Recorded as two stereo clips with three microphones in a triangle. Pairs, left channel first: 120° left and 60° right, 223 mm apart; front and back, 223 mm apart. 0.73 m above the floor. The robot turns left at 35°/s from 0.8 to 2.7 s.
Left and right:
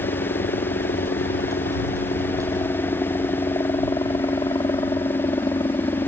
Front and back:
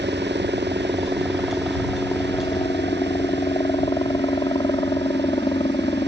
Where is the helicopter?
130° left; by 6.1 s 60° left.